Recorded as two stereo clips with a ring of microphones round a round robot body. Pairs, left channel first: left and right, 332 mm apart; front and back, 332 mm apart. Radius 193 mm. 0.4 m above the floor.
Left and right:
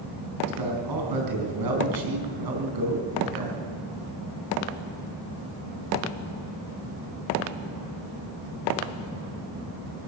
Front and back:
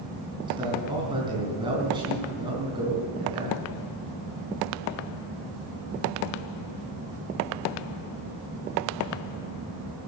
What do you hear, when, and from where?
0.5 s a man speaking: 100° right, 4 m